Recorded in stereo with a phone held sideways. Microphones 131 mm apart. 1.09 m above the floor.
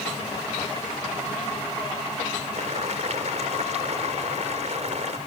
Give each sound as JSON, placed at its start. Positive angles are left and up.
{"t": 2.5, "sound": "boiling", "side_deg": -65}